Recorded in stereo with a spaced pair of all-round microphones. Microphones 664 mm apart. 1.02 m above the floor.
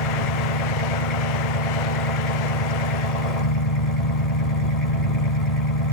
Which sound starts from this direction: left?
An engine running, at 0.0 s.